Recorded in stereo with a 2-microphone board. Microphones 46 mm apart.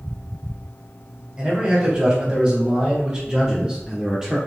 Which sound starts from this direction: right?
A man speaking, at 1.4 s.